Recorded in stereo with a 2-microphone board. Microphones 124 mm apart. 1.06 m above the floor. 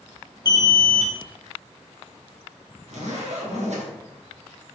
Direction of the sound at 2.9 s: 65° right (ahead or behind).